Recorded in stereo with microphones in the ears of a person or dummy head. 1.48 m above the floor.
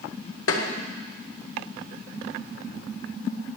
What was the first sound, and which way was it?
Tapping, 75° left (ahead or behind).